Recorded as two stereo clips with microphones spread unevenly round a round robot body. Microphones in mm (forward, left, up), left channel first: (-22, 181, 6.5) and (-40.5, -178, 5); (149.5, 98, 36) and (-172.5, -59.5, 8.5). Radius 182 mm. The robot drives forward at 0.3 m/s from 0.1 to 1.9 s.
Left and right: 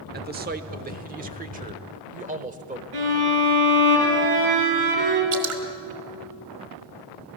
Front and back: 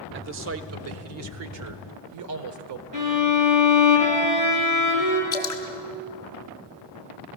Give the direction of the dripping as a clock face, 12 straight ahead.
2 o'clock.